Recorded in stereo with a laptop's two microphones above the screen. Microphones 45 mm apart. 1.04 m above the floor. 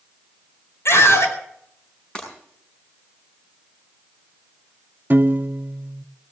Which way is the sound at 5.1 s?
45° right (ahead or behind).